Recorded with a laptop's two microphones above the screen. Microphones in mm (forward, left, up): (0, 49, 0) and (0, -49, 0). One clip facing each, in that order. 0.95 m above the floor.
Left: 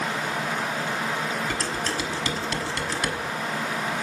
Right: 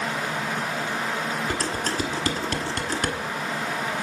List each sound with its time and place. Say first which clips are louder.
1.5 s dishes clattering: right 1 dB; 50° right (ahead or behind), 1.3 m